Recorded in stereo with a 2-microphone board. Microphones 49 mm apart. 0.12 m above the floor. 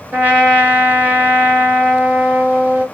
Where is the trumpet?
45° right (ahead or behind), 2 m.